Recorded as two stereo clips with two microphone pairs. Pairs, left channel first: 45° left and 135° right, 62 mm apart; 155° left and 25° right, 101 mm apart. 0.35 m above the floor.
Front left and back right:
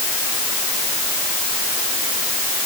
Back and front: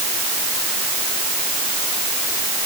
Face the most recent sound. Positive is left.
No sound to turn to.